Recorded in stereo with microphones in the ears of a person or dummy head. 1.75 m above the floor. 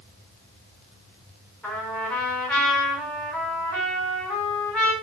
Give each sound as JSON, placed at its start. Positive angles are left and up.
{"t": 1.6, "sound": "a trumpet", "side_deg": 10, "distance_m": 4.5}